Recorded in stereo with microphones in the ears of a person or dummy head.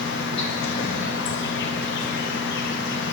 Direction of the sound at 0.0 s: 60° left (ahead or behind).